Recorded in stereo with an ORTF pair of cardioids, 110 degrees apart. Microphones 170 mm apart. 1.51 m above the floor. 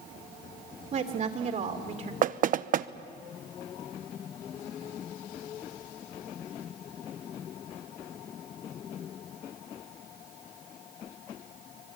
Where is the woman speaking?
40° right, 3 m.